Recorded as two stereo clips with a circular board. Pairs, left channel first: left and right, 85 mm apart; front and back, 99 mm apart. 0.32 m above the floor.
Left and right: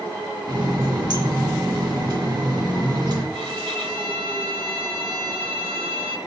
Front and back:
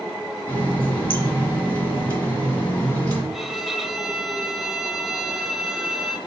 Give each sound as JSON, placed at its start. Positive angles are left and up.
{"t": 0.5, "sound": "a running tap", "azimuth_deg": -65, "distance_m": 1.8}
{"t": 3.3, "sound": "a violin", "azimuth_deg": -90, "distance_m": 0.6}